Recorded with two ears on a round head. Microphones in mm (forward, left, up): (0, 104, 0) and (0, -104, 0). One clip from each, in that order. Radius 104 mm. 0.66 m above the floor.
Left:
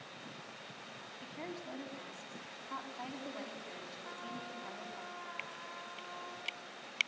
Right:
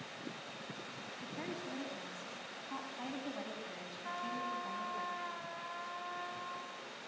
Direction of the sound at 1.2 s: Centre (ahead or behind).